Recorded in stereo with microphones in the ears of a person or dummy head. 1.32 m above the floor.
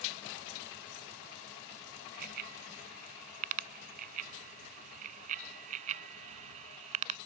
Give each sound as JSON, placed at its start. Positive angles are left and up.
{"t": 2.1, "sound": "a bicycle bell", "side_deg": -50}